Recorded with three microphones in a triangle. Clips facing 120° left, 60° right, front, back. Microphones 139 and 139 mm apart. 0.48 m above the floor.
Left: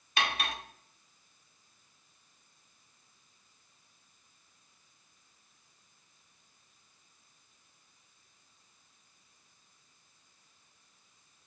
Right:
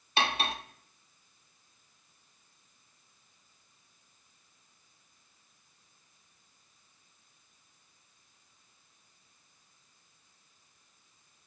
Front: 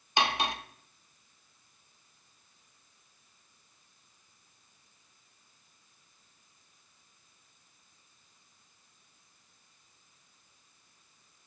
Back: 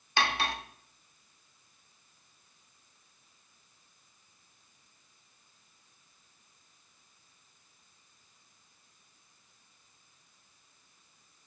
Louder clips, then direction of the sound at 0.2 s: Right 3 dB, front 1 dB; 55° right.